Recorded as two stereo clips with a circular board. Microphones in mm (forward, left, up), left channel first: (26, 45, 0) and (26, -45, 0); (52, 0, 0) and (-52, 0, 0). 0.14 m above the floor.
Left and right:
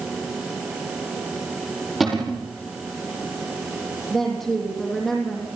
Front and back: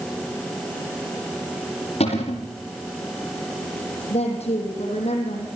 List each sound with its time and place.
2.0 s a cupboard door: straight ahead, 5 m
4.1 s a woman speaking: 5° right, 5 m